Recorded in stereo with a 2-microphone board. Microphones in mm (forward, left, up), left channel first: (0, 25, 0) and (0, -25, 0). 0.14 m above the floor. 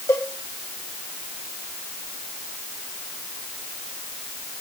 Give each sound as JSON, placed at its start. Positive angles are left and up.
{"t": 0.1, "sound": "a cowbell", "side_deg": 75, "distance_m": 3.0}